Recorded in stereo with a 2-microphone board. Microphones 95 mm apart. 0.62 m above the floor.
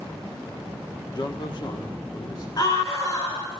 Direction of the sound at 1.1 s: 45° left (ahead or behind).